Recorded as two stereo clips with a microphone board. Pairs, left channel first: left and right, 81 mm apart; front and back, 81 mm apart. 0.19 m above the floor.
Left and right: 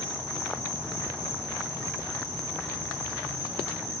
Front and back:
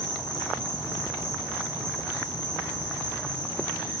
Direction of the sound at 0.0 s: 35° right.